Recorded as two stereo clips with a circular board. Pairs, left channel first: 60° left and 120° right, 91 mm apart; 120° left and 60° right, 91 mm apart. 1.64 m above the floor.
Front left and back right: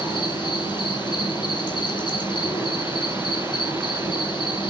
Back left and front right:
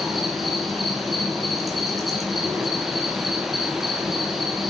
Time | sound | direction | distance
0.0 | an insect | 30° left | 3 m